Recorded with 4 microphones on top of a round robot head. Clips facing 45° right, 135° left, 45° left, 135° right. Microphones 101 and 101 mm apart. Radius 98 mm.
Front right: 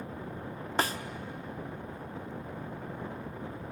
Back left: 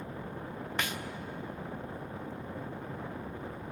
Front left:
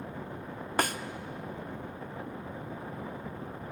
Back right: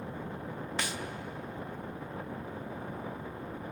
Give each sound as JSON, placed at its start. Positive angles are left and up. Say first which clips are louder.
{"t": 0.8, "sound": "a snare drum", "louder": "front right 6 dB, front left 9 dB", "azimuth_deg": 10, "distance_m": 0.8}